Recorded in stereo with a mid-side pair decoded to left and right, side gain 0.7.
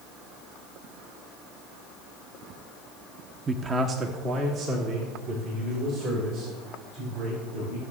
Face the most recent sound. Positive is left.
turn(degrees=-55)